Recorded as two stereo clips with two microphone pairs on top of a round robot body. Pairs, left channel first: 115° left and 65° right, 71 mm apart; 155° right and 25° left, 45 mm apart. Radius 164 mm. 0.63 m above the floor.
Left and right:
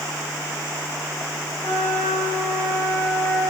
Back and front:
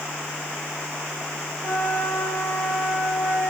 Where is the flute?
65° left, 5 m.